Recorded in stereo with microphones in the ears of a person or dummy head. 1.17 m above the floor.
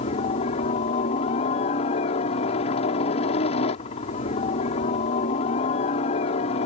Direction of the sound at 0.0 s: 35° left (ahead or behind).